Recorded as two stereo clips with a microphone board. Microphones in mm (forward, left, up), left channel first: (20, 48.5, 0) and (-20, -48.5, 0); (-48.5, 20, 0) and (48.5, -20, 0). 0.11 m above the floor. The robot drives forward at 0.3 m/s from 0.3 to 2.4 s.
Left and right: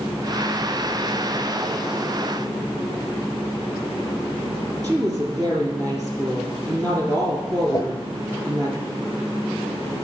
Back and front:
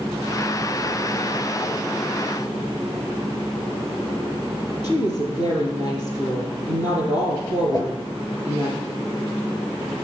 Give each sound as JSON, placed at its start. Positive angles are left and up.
{"t": 4.8, "sound": "a woman speaking", "azimuth_deg": -170, "distance_m": 3.0}
{"t": 7.7, "sound": "a whoosh", "azimuth_deg": 115, "distance_m": 0.8}